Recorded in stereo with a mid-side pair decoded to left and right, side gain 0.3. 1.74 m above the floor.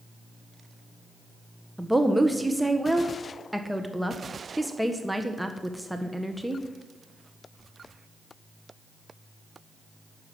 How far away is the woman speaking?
About 1.5 m.